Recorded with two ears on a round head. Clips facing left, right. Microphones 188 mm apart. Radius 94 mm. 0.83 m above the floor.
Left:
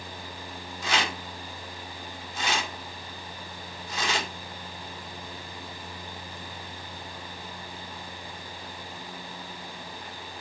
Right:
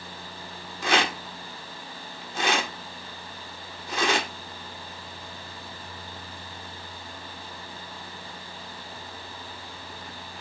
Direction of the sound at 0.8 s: 50° right (ahead or behind).